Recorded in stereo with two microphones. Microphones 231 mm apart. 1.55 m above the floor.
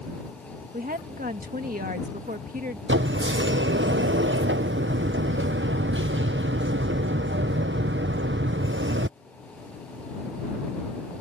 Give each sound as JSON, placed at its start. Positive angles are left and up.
{"t": 0.7, "sound": "a woman speaking", "side_deg": -35}
{"t": 2.9, "sound": "a sliding door", "side_deg": -55}